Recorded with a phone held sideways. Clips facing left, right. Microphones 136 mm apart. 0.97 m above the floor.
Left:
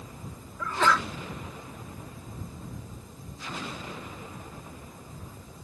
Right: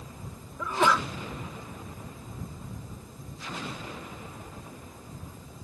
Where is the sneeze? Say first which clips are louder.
Right 1 dB; 15° right (ahead or behind).